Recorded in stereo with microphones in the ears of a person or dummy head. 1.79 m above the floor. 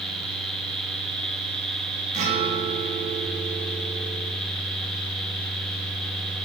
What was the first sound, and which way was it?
A guitar, 50° right (ahead or behind).